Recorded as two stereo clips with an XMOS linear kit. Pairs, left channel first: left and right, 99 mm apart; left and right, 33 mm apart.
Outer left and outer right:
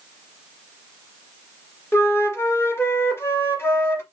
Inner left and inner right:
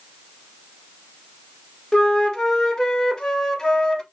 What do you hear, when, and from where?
1.9 s a flute: 25° left (ahead or behind), 0.7 m